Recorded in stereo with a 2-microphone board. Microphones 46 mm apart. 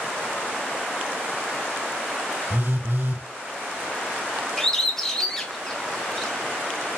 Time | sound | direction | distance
2.5 | a phone buzzing | 45° right (ahead or behind) | 1.9 m
4.6 | a bird | 10° left (ahead or behind) | 1.2 m